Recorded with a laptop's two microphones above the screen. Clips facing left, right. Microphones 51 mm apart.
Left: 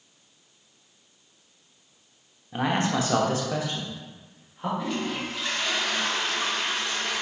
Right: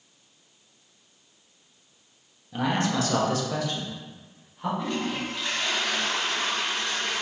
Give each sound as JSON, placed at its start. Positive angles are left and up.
{"t": 2.5, "sound": "a man speaking", "side_deg": 25, "distance_m": 0.8}
{"t": 4.8, "sound": "a toilet flushing", "side_deg": 5, "distance_m": 1.9}